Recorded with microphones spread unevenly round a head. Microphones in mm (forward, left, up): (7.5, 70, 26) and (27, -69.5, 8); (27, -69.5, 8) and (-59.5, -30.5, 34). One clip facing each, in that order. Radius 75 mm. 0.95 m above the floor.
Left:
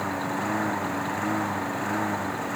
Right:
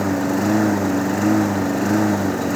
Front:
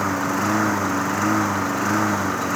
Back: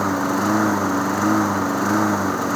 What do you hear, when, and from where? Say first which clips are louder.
0.0 s a lawn mower: right 10 dB, back 2 dB; 130° right